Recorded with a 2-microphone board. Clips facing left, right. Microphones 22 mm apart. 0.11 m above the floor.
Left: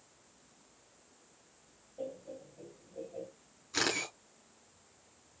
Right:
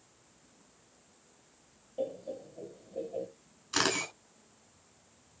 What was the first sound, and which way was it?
Laughter, 65° right (ahead or behind).